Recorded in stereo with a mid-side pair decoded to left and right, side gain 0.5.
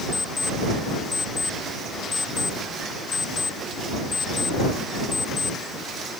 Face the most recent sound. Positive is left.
turn(degrees=30)